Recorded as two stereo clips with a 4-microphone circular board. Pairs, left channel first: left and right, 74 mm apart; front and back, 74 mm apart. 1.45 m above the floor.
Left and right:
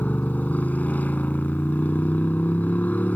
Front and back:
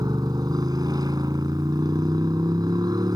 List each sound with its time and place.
0.0 s a motorcycle: 155° left